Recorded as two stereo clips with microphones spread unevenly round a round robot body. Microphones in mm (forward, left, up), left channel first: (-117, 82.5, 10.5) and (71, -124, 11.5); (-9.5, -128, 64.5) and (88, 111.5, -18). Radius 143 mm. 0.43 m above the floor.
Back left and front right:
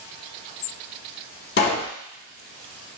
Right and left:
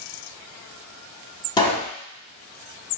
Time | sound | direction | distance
1.6 | a pop | 155° left | 1.1 m